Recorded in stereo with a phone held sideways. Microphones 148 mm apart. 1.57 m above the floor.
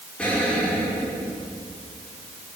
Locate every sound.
0.2 s an explosion: 10° left (ahead or behind), 6 m